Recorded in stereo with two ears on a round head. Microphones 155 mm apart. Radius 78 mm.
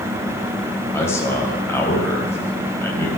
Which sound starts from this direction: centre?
A man speaking, at 0.9 s.